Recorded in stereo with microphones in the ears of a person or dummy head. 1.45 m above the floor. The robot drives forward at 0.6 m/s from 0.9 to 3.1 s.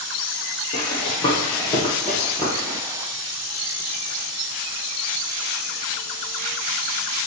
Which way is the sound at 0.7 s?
35° left (ahead or behind).